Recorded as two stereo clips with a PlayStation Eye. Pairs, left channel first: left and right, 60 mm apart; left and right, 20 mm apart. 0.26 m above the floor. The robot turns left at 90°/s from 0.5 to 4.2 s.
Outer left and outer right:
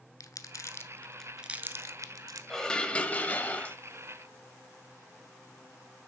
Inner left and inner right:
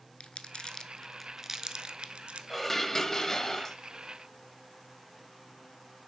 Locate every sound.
0.2 s crumpling: 70° left (ahead or behind), 0.6 m; by 2.4 s 80° right, 0.6 m
2.5 s dishes clattering: 5° left (ahead or behind), 0.6 m; by 3.8 s 20° left (ahead or behind), 0.6 m